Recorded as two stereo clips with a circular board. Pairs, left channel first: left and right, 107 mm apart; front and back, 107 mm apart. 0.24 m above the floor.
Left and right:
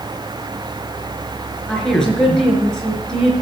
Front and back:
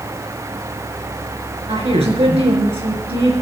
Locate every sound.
1.7 s a woman speaking: 175° left, 4 m